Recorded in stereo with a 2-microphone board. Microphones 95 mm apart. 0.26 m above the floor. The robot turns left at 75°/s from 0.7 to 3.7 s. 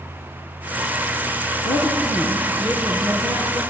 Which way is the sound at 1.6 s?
80° left.